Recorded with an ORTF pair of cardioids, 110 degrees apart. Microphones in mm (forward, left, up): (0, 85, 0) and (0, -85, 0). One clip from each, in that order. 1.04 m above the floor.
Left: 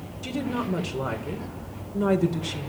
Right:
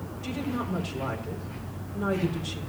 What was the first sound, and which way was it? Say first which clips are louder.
A woman speaking: left 3 dB; 55° left.